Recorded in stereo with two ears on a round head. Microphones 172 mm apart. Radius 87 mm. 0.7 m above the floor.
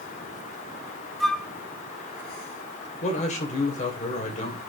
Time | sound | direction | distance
1.2 | a flute | centre (ahead or behind) | 0.7 m
3.0 | a man speaking | 40° left (ahead or behind) | 3 m